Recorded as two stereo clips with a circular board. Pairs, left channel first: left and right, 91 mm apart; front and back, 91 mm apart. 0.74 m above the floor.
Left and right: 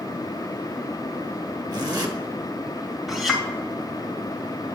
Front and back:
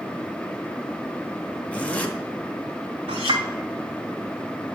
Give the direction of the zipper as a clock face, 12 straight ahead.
2 o'clock.